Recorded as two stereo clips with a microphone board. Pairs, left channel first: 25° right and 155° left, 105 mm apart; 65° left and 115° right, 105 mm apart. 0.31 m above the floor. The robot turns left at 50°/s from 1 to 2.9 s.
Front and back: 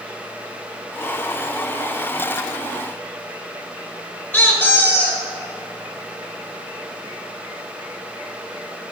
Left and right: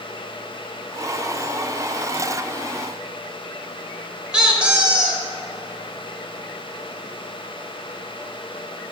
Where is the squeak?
45° right, 0.9 m.